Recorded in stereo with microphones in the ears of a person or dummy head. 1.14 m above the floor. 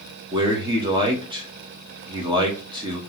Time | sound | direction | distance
0.3 | a man speaking | 25° right (ahead or behind) | 1.5 m